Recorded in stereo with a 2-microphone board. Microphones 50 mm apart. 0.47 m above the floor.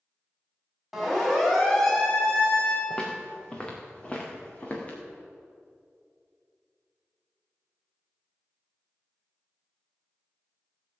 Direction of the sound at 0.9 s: Centre (ahead or behind).